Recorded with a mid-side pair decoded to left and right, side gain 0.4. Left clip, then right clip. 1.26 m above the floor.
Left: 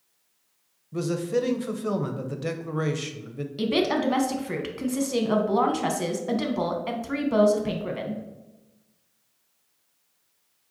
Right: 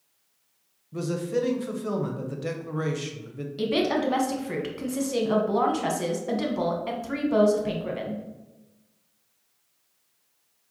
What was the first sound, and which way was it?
A man speaking, 25° left.